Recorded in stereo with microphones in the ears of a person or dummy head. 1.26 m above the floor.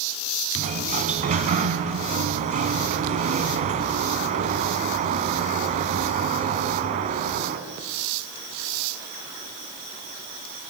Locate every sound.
0.6 s a sliding door: 50° right (ahead or behind), 2.5 m